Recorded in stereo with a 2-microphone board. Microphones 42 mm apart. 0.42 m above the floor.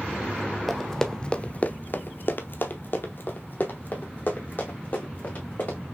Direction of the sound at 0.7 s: Centre (ahead or behind).